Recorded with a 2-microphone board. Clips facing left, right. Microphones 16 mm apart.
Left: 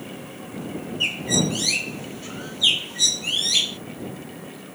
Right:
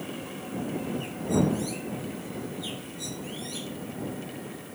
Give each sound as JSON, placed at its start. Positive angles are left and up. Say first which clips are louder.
{"t": 1.0, "sound": "a bird", "louder": "left 6 dB", "side_deg": 75}